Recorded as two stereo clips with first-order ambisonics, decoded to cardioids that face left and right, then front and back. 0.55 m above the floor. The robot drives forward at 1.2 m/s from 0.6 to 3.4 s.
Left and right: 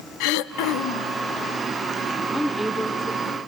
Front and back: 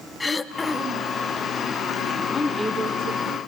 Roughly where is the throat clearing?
Left.